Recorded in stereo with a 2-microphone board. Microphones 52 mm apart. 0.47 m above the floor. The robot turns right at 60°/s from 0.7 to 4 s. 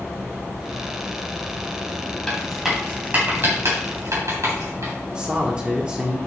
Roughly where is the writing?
Centre.